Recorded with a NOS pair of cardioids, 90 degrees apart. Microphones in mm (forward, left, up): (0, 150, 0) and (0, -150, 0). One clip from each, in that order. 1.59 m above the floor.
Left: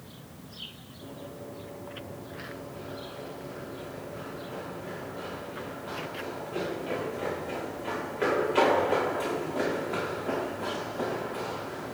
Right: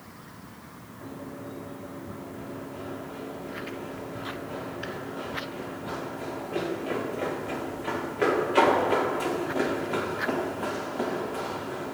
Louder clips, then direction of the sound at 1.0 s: Right 2 dB; 30° right.